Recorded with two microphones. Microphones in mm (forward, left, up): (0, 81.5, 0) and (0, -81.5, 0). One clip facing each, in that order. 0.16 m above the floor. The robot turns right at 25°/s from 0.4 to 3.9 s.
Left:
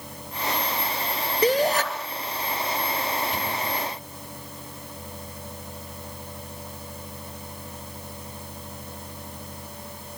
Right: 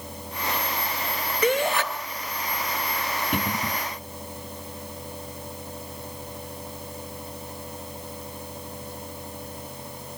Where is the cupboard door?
65° right (ahead or behind), 2.5 m; by 3.8 s 70° right (ahead or behind), 2.5 m.